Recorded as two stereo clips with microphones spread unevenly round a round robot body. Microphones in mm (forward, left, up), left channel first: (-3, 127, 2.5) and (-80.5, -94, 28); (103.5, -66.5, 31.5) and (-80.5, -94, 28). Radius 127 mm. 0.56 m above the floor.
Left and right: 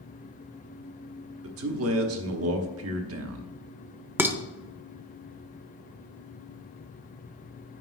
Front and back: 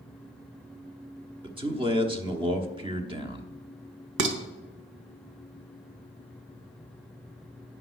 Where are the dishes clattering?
170° left, 1.0 m.